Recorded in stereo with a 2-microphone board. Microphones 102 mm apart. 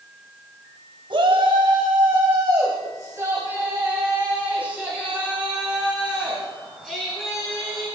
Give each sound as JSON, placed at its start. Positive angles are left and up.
{"t": 1.1, "sound": "a shout", "side_deg": -55, "distance_m": 2.5}